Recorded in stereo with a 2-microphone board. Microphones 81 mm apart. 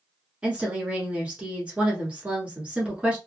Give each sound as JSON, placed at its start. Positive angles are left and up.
{"t": 0.4, "sound": "a woman speaking", "side_deg": -15, "distance_m": 1.1}